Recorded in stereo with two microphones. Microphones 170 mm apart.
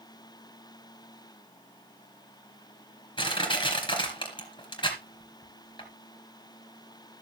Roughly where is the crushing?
Left.